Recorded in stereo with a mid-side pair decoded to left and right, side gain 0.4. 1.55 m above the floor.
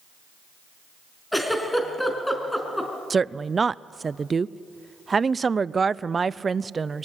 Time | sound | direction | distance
1.3 | a giggle | 5° left | 4.5 m
3.1 | a woman speaking | 35° right | 0.5 m